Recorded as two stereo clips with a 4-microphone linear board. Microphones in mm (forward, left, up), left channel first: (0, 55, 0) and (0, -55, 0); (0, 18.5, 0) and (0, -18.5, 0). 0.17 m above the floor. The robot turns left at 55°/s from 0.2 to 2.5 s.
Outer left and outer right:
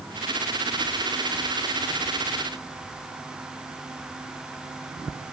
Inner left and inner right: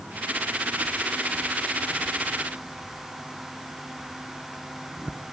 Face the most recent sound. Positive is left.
No sound to turn to.